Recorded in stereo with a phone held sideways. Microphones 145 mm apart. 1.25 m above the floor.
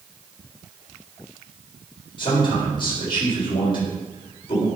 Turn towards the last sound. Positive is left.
turn(degrees=35)  # may be behind; listen again after turning